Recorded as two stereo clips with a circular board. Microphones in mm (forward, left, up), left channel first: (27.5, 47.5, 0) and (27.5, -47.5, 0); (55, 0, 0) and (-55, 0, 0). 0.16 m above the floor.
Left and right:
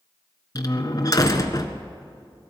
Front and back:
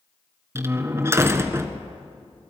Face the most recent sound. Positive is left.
turn(degrees=120)